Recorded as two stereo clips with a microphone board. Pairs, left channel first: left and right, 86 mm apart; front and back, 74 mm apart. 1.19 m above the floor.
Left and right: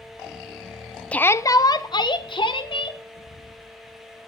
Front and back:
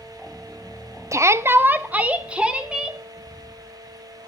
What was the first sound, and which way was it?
A shout, 160° left.